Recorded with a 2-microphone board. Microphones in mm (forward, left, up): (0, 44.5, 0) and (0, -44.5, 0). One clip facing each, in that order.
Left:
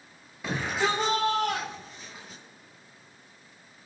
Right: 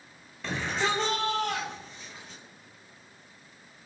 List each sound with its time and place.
0.4 s a shout: 10° left (ahead or behind), 2.5 m